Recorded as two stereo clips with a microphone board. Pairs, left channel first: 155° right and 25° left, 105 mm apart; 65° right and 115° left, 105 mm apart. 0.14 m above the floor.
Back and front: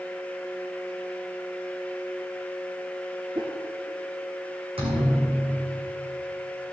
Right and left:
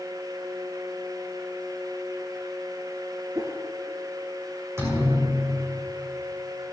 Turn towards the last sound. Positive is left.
turn(degrees=50)